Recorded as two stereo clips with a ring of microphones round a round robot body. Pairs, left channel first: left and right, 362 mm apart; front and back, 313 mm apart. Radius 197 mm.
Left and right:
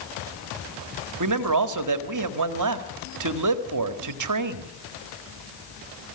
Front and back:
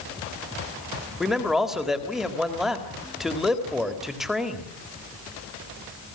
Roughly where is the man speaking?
Right.